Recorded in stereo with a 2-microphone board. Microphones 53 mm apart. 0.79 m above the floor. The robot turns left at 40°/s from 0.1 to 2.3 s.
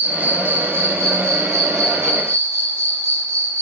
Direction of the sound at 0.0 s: 25° right.